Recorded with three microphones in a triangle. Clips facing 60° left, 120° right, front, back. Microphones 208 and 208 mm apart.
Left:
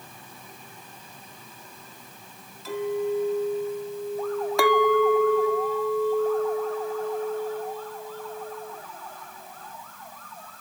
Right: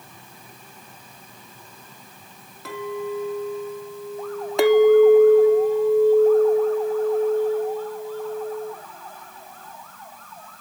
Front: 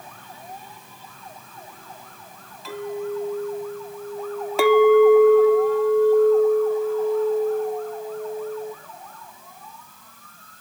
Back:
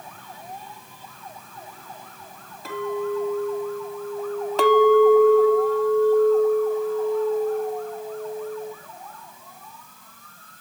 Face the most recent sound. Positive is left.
turn(degrees=-70)